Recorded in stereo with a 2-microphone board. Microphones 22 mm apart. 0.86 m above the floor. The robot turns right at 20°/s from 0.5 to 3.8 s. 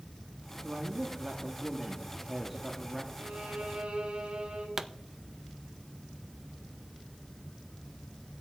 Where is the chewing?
I don't hear chewing.